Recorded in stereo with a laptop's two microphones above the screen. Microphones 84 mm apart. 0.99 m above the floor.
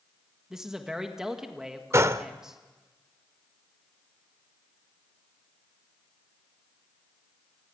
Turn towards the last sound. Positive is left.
turn(degrees=-35)  # may be behind; listen again after turning